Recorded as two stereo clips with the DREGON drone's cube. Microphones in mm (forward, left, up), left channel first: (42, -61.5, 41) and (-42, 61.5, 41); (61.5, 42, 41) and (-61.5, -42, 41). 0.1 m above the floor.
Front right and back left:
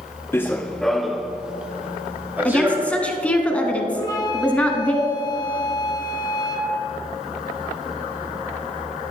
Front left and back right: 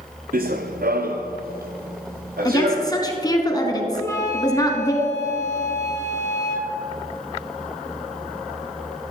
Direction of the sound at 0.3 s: 130° right.